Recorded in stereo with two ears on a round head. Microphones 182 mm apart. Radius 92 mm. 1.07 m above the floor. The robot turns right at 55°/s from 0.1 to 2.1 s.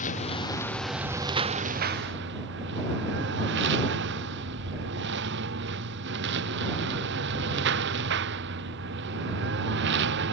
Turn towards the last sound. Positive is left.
turn(degrees=-65)  # may be behind; listen again after turning